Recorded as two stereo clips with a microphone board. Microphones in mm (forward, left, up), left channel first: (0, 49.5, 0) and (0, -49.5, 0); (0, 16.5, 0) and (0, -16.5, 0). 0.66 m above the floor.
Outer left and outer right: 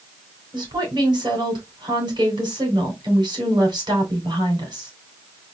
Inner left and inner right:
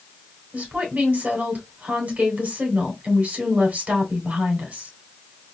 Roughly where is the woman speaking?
Right.